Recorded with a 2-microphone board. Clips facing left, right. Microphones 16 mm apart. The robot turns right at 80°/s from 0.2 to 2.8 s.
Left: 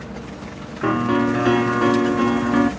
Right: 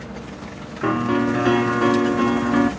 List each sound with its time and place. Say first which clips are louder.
0.8 s a piano: left 1 dB; 5° left (ahead or behind), 0.7 m